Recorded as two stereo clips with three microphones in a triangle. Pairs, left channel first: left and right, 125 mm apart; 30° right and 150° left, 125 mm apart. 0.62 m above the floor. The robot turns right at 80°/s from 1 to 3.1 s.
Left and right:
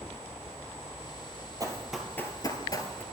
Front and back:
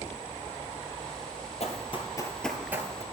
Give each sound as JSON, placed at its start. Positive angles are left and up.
{"t": 1.6, "sound": "running footsteps", "azimuth_deg": -35, "distance_m": 1.0}